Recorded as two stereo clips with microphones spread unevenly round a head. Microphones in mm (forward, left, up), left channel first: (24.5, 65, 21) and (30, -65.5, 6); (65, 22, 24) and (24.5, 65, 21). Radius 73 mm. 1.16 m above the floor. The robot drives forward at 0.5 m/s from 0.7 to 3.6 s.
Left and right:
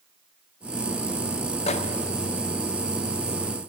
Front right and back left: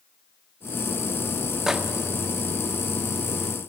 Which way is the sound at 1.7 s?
50° left.